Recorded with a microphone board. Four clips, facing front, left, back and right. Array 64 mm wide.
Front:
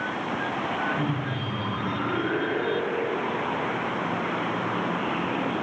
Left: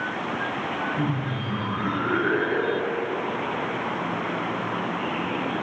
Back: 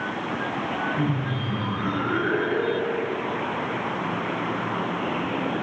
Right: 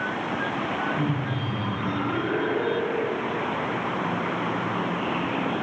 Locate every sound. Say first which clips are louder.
1.0 s laughter: even, back 2 dB; 125° left, 3 m; by 3.2 s 100° left, 2 m